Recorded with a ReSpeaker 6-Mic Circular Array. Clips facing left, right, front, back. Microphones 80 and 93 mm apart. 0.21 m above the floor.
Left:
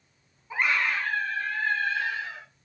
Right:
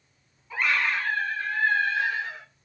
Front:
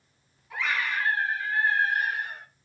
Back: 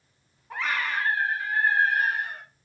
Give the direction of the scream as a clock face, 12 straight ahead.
7 o'clock.